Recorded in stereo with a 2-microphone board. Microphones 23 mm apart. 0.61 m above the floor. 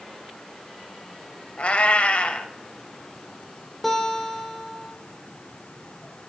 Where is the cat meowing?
65° left (ahead or behind), 0.8 m.